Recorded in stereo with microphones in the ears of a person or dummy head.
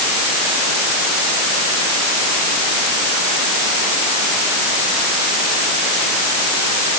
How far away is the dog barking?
I don't hear a dog barking.